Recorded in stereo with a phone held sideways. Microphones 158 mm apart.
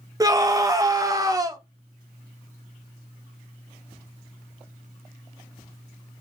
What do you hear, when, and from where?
0.2 s a scream: 20° right (ahead or behind), 0.6 m